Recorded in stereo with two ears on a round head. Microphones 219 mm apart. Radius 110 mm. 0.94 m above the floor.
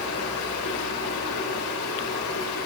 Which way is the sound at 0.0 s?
85° left.